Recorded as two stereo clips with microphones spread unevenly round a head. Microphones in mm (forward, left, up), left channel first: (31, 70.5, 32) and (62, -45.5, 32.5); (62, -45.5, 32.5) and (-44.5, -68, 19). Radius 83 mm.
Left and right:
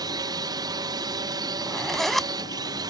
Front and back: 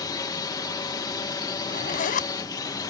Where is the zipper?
15° left.